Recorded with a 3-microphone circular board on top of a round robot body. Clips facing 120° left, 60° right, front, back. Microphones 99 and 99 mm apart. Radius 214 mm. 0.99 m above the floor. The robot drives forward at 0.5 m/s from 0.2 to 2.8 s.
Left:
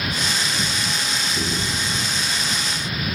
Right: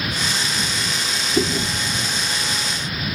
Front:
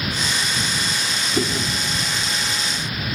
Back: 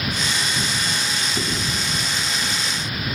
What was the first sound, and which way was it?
Chewing, 65° right.